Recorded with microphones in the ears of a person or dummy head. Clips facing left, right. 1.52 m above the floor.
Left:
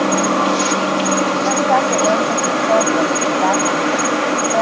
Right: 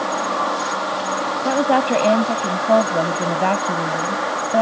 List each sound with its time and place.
0.0 s an insect: 35° left (ahead or behind)
1.4 s a woman speaking: 35° right (ahead or behind)